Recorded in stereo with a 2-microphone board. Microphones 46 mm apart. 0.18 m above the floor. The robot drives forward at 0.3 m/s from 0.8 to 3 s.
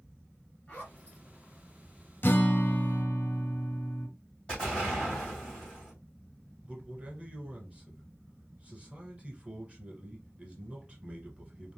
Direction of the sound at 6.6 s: 25° right (ahead or behind).